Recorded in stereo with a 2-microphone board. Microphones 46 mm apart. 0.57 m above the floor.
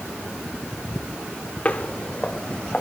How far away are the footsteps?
About 0.8 m.